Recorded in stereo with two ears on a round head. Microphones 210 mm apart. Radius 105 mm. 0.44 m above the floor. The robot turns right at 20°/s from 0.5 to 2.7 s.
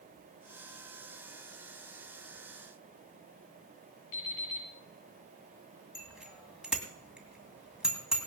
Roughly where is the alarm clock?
Left.